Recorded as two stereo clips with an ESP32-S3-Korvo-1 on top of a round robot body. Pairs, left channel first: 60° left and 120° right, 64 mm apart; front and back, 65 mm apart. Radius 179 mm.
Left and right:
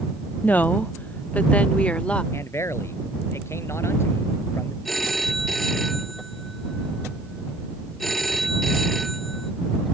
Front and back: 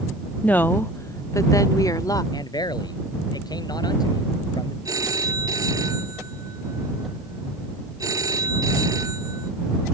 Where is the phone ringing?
150° left.